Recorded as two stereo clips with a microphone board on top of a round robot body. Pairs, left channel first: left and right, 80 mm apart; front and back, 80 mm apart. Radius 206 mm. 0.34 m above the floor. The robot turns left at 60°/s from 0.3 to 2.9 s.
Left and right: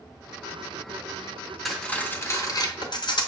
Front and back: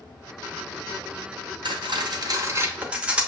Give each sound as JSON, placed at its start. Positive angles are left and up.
{"t": 1.6, "sound": "cutlery clinking", "azimuth_deg": 180, "distance_m": 0.7}